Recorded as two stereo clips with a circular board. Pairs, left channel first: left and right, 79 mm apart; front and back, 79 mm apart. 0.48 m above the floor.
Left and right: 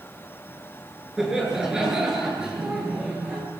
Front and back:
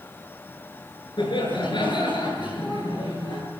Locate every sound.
1.2 s laughter: 5° right, 6.5 m; by 3.4 s 10° right, 8 m